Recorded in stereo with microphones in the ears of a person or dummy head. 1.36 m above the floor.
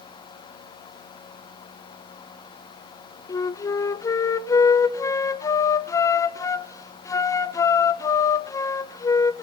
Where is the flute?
15° left (ahead or behind), 0.8 m.